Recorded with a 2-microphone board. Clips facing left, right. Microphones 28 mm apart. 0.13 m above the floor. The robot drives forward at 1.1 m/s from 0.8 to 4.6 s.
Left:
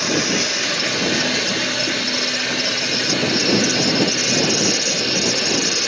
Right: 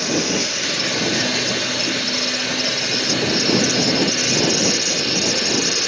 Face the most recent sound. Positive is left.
turn(degrees=40)  # may be behind; listen again after turning